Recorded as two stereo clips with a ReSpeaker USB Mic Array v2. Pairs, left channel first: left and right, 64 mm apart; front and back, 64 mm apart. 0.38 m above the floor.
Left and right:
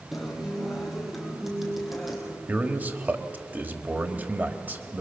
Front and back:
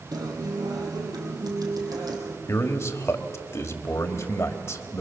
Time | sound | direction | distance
0.1 | a guitar | 175° right | 2.5 m
2.5 | a man speaking | 35° right | 1.5 m